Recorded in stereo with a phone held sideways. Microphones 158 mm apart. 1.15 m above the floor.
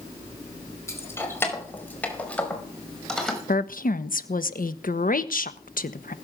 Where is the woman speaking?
60° left (ahead or behind), 1.3 m.